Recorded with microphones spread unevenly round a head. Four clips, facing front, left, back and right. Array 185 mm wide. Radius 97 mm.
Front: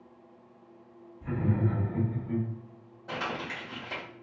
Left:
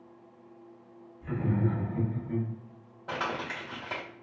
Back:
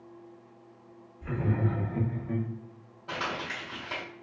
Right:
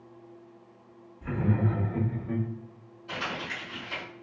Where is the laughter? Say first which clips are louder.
Right 1 dB, front 1 dB; 70° right, 2 m; by 2.5 s 95° right, 1.6 m.